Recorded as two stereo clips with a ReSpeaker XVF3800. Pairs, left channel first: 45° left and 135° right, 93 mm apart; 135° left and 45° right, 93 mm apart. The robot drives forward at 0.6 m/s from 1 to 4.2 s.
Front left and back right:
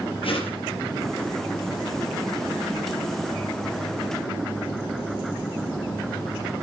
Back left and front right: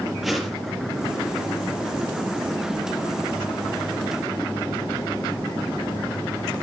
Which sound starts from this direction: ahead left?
A whoosh, at 0.2 s.